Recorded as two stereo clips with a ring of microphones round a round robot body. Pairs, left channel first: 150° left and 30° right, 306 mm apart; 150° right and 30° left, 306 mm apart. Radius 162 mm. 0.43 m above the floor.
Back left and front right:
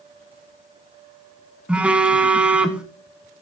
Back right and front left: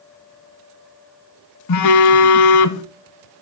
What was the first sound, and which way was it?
A phone buzzing, 115° right.